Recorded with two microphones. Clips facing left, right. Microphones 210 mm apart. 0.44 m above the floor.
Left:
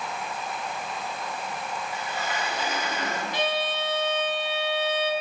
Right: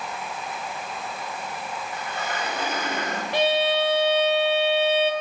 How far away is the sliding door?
About 5.5 m.